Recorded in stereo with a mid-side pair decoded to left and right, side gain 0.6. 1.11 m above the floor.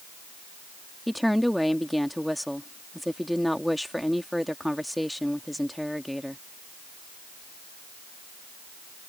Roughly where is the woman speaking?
Ahead.